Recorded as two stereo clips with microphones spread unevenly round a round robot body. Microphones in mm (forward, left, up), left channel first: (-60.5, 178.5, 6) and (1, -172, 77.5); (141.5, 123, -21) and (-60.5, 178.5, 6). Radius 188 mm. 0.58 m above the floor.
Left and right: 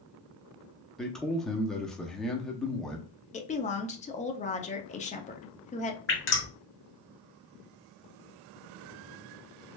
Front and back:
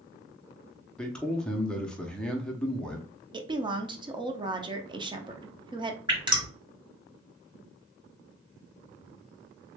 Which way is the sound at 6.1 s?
95° left.